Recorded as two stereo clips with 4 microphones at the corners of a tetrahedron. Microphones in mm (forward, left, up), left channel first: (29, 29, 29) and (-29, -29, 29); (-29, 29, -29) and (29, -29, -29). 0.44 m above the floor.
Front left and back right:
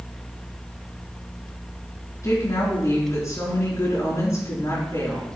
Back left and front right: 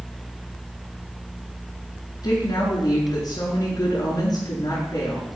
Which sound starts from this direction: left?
A woman speaking, at 2.2 s.